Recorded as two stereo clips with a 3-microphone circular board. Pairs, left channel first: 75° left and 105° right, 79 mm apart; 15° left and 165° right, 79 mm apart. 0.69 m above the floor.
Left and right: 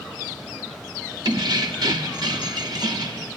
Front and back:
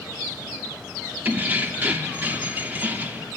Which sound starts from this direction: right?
Keys jangling, at 1.2 s.